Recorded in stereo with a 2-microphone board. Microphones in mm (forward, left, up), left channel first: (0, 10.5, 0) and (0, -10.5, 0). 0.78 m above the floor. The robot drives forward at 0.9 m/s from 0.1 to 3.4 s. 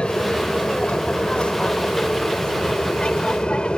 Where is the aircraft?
70° left (ahead or behind); by 3.8 s 60° left (ahead or behind).